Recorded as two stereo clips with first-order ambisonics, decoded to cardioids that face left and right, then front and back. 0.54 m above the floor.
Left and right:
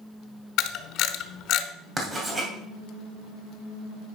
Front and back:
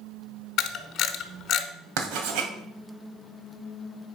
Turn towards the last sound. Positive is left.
turn(degrees=-165)